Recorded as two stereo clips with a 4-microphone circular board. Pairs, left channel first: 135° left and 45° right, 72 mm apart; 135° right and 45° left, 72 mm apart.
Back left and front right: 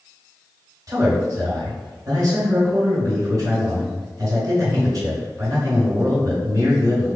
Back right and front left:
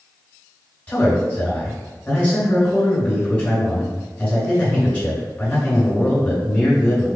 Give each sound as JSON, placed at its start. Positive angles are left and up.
{"t": 0.9, "sound": "a man speaking", "azimuth_deg": -70, "distance_m": 2.0}